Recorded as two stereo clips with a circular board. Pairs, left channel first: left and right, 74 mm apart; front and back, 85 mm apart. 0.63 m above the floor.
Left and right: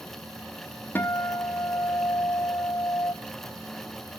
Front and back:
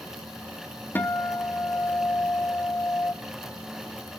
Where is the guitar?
50° left, 0.9 m.